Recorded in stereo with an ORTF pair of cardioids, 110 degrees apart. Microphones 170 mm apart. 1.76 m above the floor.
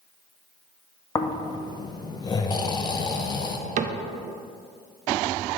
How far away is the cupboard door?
About 0.6 m.